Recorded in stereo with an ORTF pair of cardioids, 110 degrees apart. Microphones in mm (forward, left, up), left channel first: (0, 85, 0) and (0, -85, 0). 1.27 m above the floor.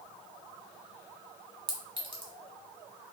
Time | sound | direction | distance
1.7 | a clink | 30° right | 1.1 m